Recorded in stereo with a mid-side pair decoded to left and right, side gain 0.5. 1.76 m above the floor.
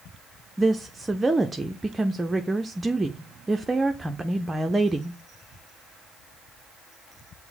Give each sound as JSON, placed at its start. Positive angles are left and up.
{"t": 0.6, "sound": "a woman speaking", "azimuth_deg": -15, "distance_m": 0.5}